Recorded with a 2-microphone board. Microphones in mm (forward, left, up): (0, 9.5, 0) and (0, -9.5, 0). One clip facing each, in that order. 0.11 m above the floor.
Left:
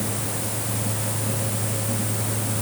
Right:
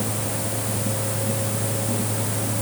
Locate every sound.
Only background noise.